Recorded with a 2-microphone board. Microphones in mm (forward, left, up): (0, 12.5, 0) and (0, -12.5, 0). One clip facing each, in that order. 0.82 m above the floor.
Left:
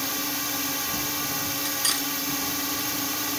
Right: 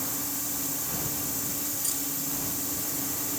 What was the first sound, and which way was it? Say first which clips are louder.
A drone: left 6 dB; 45° left (ahead or behind).